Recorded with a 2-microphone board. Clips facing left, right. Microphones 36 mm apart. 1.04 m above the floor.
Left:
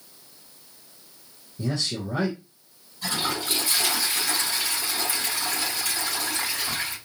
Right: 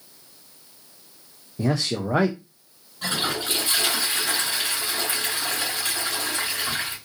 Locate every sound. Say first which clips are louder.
1.6 s a man speaking: right 4 dB; 65° right (ahead or behind), 0.6 m
3.0 s a toilet flushing: right 2 dB; 70° right (ahead or behind), 3 m